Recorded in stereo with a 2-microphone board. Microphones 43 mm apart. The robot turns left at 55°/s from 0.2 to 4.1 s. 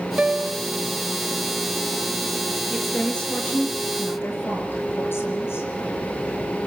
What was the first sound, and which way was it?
A piano, 30° right (ahead or behind).